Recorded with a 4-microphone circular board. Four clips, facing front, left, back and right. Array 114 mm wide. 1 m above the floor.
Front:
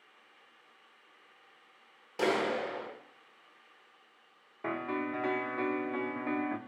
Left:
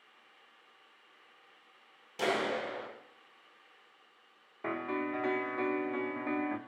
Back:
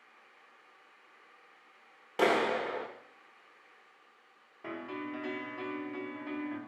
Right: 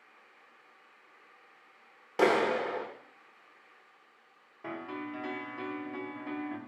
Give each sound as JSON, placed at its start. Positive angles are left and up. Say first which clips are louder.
{"t": 2.2, "sound": "a clap", "louder": "right 6 dB, back 2 dB", "azimuth_deg": -120, "distance_m": 1.1}
{"t": 4.6, "sound": "a piano", "louder": "left 4 dB, front 5 dB", "azimuth_deg": 40, "distance_m": 0.6}